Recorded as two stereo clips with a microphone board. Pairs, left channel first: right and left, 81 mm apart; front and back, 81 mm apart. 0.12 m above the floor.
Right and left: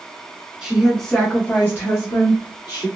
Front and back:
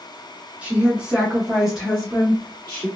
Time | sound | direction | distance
0.6 | a woman speaking | 150° left | 1.1 m